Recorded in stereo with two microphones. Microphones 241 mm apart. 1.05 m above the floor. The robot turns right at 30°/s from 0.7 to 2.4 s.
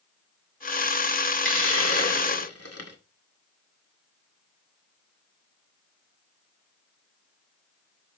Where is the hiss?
55° left (ahead or behind), 2 m; by 3.0 s 85° left, 2 m.